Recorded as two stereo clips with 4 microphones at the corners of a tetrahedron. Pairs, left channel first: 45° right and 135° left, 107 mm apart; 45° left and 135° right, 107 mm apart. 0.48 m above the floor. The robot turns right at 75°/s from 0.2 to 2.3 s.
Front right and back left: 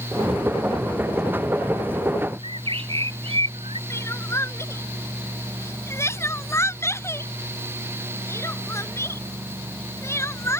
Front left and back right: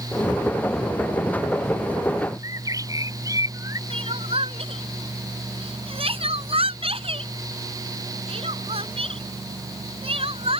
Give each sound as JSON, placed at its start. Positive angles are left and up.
{"t": 2.4, "sound": "a bird", "azimuth_deg": 170}
{"t": 3.9, "sound": "crying", "azimuth_deg": -110}